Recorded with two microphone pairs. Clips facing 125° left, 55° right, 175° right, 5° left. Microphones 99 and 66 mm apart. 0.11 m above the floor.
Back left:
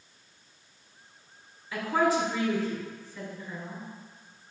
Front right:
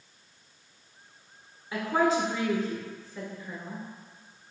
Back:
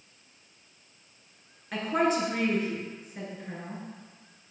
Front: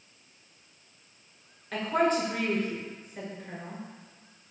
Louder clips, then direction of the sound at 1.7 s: Even, even; 95° right.